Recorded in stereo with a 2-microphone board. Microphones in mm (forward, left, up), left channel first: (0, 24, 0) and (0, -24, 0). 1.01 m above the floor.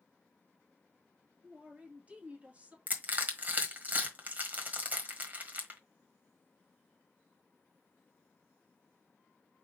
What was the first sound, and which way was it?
A man speaking, 25° right (ahead or behind).